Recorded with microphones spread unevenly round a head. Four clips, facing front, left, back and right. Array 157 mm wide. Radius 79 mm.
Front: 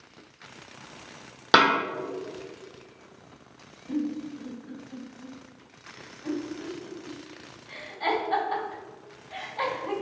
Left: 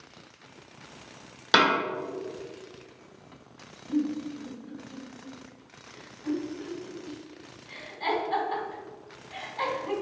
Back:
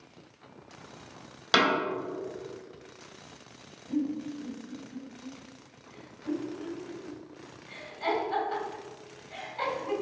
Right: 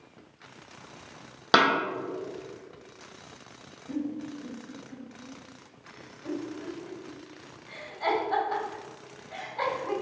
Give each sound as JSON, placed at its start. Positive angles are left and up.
{"t": 1.5, "sound": "a snare drum", "azimuth_deg": -35, "distance_m": 1.9}
{"t": 3.9, "sound": "a giggle", "azimuth_deg": -45, "distance_m": 1.9}